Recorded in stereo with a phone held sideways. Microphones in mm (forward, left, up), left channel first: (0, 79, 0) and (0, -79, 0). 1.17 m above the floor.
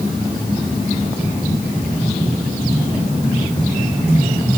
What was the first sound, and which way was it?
Only background noise.